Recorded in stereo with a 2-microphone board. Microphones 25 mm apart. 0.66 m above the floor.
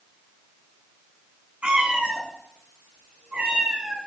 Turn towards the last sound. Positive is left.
turn(degrees=-55)  # may be behind; listen again after turning